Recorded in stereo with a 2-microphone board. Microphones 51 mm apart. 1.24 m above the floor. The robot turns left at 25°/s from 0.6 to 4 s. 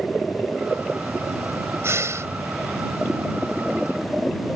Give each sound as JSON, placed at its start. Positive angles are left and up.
{"t": 1.8, "sound": "breathing", "side_deg": -60}